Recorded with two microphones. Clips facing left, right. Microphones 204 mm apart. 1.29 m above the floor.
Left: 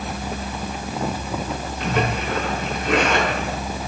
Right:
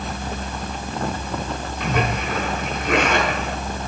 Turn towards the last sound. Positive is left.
turn(degrees=-60)  # may be behind; listen again after turning